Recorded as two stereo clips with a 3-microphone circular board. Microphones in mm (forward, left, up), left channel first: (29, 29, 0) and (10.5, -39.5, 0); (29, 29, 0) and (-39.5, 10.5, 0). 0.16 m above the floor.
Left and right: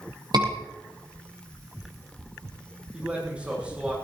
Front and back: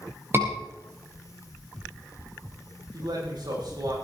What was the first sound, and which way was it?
A scream, 110° right.